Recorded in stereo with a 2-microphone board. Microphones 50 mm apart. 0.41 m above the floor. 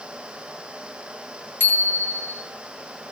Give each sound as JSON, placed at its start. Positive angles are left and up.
{"t": 1.6, "sound": "a bicycle bell", "side_deg": 50, "distance_m": 5.5}